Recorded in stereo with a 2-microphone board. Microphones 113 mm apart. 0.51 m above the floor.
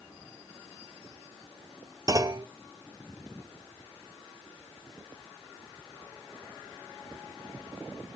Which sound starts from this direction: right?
A clunk, at 2.1 s.